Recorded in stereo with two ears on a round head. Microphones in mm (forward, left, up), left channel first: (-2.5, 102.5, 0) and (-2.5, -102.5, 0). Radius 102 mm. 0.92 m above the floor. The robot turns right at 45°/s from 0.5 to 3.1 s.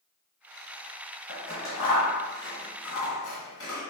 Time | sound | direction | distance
1.3 | scissors | 15° right (ahead or behind) | 1.3 m